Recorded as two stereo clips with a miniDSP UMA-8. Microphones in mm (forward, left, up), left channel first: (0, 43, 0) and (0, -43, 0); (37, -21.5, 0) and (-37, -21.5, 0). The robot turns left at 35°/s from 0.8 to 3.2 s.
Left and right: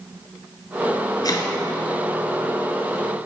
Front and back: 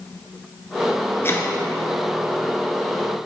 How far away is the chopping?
About 1.0 m.